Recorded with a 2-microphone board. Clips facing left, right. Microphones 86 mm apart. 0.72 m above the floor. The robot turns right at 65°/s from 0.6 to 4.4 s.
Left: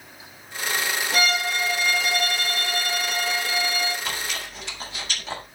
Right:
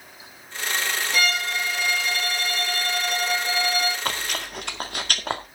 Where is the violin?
45° left, 7.5 m; by 4.0 s 135° right, 7.5 m.